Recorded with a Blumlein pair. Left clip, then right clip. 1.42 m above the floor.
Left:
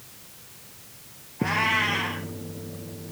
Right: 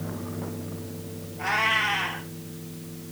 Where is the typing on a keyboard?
I don't hear typing on a keyboard.